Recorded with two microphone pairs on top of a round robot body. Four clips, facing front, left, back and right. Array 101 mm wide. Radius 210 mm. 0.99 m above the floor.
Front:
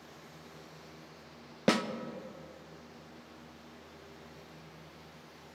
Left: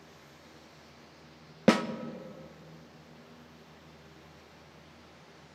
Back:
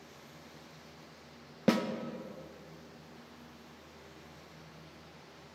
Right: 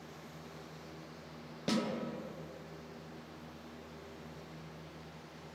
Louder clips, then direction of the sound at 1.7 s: Left 10 dB, even; 70° left.